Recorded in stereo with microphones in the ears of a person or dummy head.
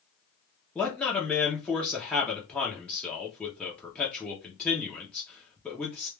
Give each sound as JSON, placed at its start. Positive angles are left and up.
{"t": 0.8, "sound": "a man speaking", "side_deg": 5, "distance_m": 0.7}